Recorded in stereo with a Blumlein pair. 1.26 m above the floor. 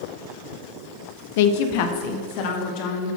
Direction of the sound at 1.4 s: 50° left.